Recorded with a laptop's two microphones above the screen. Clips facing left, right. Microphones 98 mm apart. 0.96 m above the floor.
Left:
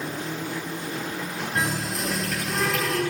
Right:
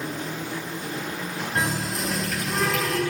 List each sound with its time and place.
1.6 s a running tap: 5° right (ahead or behind), 4 m